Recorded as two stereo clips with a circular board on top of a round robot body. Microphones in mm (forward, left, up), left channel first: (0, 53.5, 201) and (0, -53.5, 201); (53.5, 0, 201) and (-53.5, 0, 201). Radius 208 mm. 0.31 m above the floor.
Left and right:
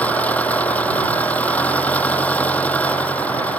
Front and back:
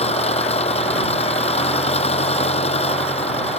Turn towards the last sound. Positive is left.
turn(degrees=15)